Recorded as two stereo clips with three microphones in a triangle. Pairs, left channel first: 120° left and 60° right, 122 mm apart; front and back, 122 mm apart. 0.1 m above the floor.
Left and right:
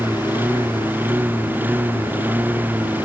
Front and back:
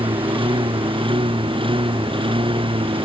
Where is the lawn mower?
135° right.